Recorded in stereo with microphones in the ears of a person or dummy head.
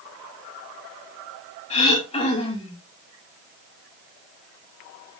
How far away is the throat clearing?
About 2.5 m.